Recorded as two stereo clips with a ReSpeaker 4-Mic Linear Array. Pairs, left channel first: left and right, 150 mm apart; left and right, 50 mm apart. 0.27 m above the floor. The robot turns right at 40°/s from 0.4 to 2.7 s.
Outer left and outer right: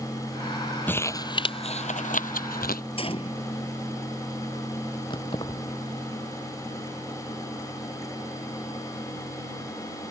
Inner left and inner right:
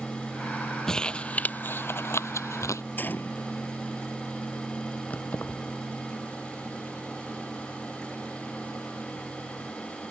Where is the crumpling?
10° left (ahead or behind); by 2.8 s 85° left.